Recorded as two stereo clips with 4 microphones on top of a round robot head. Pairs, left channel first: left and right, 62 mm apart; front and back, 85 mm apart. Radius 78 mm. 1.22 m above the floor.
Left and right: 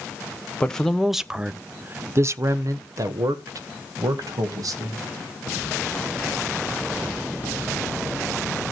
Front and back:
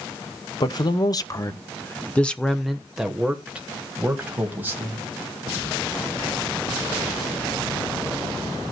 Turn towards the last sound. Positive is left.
turn(degrees=-110)